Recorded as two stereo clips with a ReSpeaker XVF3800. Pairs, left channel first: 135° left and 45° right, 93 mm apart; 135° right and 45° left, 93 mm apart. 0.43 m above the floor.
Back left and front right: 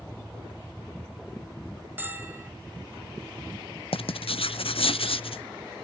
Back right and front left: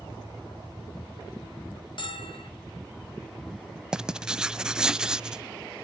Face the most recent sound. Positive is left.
turn(degrees=130)